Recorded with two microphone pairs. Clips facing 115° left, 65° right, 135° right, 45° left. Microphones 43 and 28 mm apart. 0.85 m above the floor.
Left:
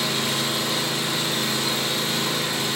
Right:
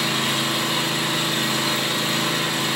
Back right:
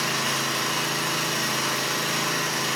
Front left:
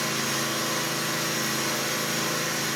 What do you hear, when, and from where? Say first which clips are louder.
0.0 s an engine running: right 2 dB, back right 2 dB; 105° right, 5.5 m